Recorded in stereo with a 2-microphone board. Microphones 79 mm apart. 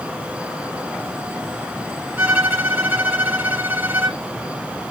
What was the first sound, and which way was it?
A violin, 25° right (ahead or behind).